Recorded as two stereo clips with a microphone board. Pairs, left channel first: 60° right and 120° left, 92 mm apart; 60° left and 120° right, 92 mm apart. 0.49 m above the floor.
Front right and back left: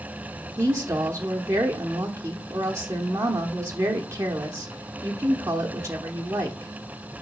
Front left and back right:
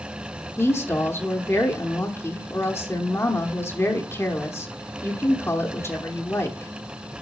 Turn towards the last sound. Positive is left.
turn(degrees=95)